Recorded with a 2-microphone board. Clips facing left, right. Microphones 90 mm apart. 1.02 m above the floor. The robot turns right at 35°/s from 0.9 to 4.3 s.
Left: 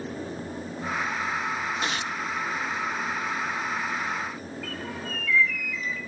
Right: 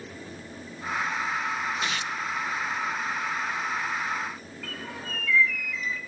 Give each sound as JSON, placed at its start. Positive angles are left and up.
{"t": 1.8, "sound": "tearing paper", "side_deg": 35, "distance_m": 0.6}
{"t": 4.6, "sound": "a bird", "side_deg": 0, "distance_m": 1.6}